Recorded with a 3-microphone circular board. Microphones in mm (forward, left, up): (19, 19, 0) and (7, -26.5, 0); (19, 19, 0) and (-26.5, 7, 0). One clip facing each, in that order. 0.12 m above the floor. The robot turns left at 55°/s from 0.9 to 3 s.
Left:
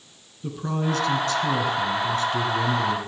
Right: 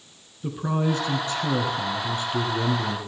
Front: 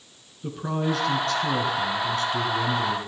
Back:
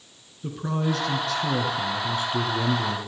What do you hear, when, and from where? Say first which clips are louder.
0.4 s a man speaking: right 2 dB, even; 65° right, 1.8 m; by 3.0 s straight behind, 1.8 m